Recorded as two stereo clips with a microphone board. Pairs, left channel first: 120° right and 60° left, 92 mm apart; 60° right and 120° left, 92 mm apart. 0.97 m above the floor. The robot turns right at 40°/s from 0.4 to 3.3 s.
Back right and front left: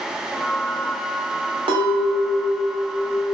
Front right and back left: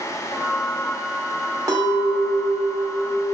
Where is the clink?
70° left, 0.7 m; by 3.3 s 135° left, 0.7 m.